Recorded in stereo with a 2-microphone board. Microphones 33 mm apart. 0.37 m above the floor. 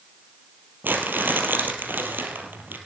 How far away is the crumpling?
About 2.5 m.